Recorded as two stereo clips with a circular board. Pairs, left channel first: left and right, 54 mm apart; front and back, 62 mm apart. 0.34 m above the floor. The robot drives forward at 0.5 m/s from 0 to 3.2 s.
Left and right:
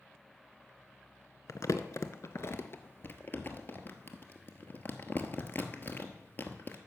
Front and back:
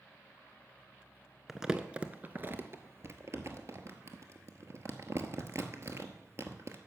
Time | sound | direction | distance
1.5 | crumpling | 95° left | 0.8 m